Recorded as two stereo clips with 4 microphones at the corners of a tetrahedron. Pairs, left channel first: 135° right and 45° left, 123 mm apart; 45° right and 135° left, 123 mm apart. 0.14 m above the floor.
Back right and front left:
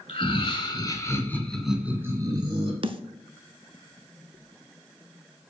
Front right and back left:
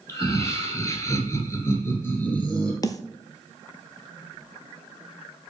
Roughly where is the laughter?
Right.